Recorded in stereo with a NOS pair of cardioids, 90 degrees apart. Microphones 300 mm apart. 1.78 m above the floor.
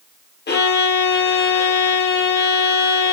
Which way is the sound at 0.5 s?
35° left.